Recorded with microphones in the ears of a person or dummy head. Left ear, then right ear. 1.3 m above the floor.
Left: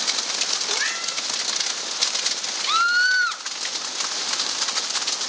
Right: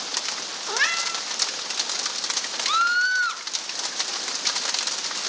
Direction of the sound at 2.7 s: 5° left (ahead or behind).